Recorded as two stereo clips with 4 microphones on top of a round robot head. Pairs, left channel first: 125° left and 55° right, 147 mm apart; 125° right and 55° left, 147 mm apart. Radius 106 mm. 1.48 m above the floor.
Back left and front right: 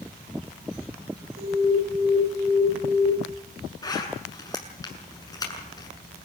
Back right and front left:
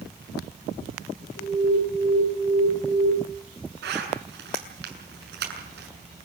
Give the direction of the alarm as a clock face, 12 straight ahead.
3 o'clock.